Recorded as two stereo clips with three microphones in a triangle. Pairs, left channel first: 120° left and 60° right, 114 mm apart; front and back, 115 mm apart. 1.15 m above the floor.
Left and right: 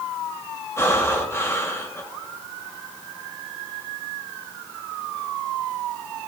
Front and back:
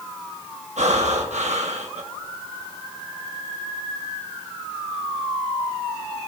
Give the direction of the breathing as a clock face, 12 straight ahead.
6 o'clock.